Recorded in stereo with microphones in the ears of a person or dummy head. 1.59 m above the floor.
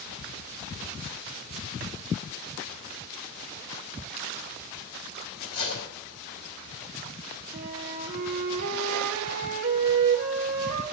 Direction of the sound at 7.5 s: 40° right (ahead or behind).